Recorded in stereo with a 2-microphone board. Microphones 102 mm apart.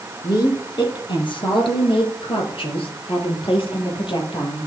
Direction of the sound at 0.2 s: 45° left (ahead or behind).